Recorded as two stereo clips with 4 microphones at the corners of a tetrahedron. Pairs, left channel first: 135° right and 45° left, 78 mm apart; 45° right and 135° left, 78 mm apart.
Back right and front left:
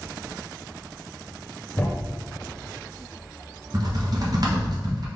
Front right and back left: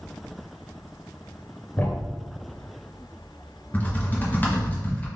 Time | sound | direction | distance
1.8 | a thud | 85° right | 0.8 m
3.7 | typing on a keyboard | 20° left | 1.1 m